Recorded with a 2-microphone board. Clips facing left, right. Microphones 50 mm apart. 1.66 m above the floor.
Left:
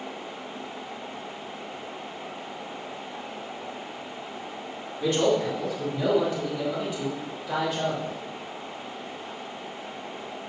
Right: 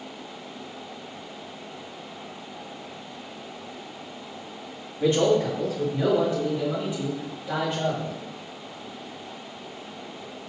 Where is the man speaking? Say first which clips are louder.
Right 2 dB; 25° right (ahead or behind), 5 m.